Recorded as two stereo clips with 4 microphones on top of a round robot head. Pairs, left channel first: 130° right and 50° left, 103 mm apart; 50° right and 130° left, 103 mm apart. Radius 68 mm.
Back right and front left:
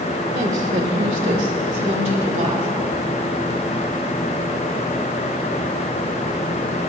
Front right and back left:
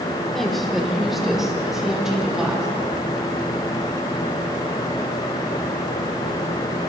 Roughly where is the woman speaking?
Ahead left.